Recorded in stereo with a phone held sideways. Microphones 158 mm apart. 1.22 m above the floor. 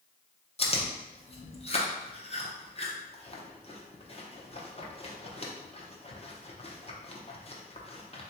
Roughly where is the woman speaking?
I don't hear a woman speaking.